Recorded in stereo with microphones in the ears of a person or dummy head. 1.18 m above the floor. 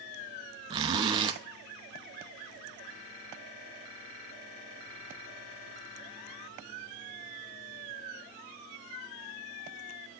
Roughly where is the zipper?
Right.